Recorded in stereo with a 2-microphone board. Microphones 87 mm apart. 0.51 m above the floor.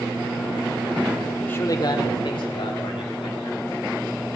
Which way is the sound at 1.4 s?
15° left (ahead or behind).